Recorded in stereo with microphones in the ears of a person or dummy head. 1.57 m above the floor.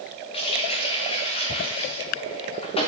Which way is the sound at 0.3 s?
30° left (ahead or behind).